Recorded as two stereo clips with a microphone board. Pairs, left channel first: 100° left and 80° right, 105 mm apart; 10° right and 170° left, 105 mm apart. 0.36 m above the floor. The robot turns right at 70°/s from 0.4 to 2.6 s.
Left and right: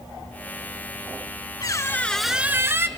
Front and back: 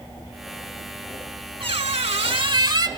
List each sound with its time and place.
1.6 s a squeak: 145° left, 0.6 m; by 2.9 s 145° right, 0.6 m